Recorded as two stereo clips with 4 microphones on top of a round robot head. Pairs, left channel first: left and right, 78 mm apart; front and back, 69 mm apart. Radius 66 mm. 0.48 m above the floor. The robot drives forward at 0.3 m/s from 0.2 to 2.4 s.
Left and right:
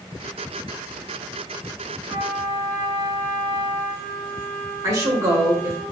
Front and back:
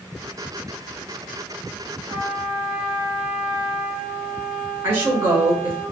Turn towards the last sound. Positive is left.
turn(degrees=-130)